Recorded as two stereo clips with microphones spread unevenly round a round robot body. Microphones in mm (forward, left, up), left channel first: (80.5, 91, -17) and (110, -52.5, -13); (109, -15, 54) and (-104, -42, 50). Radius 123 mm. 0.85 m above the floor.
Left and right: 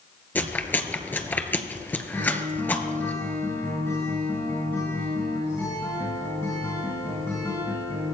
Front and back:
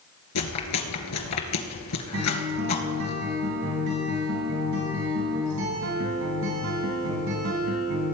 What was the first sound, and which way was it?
Chewing, 25° left.